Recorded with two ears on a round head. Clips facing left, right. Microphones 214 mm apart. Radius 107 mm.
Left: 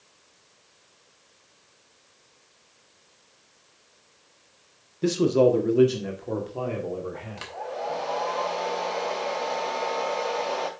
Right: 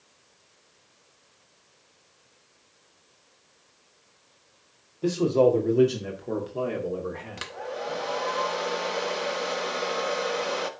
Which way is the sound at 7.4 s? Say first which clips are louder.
Even; 20° right (ahead or behind).